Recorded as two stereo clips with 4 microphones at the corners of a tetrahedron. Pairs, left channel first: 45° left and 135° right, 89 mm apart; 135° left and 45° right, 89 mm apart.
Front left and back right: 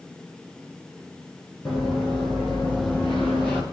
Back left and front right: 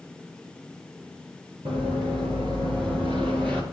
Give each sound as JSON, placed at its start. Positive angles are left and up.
{"t": 1.6, "sound": "running footsteps", "azimuth_deg": -45, "distance_m": 6.0}